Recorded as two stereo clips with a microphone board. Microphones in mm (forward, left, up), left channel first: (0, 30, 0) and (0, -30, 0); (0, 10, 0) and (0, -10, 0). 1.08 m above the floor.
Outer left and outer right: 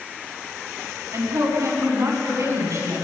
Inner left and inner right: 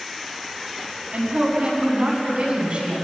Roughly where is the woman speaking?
Right.